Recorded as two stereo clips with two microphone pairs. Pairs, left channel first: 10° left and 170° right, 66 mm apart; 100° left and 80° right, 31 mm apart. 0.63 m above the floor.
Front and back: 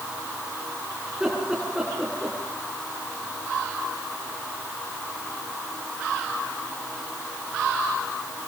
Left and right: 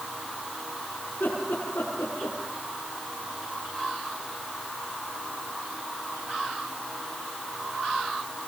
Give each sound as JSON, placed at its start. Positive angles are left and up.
{"t": 1.1, "sound": "laughter", "azimuth_deg": 110, "distance_m": 8.0}